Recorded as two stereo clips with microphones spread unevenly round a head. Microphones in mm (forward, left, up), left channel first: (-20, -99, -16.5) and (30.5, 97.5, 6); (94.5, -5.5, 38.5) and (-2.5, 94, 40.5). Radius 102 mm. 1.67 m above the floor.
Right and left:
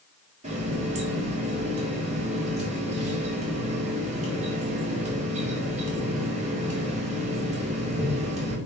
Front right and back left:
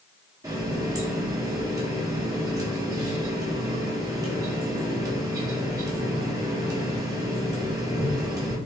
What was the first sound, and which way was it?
A running tap, 85° left.